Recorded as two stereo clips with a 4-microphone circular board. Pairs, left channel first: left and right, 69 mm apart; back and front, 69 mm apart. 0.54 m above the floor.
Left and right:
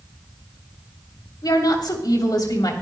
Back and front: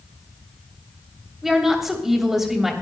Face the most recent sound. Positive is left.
turn(degrees=85)